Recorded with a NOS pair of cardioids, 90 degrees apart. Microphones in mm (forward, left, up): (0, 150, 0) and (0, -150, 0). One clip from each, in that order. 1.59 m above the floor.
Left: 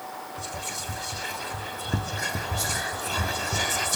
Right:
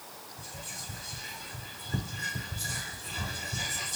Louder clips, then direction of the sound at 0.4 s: Left 7 dB; 50° left.